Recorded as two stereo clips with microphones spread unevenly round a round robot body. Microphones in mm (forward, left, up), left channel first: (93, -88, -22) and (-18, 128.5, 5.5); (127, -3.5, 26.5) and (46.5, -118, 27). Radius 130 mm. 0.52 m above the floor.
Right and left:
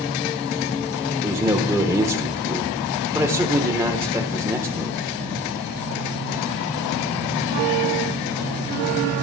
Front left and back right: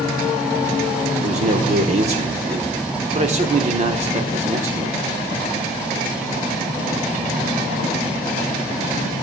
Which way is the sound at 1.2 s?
160° right.